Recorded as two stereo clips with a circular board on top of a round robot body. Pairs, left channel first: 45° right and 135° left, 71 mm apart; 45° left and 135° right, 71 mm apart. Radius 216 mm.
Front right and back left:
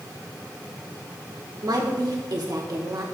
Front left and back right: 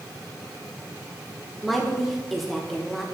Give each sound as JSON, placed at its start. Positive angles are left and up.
{"t": 1.6, "sound": "a woman speaking", "azimuth_deg": 135, "distance_m": 1.8}